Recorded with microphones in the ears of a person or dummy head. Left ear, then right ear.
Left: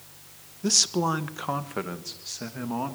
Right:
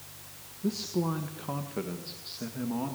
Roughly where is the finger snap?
I don't hear a finger snap.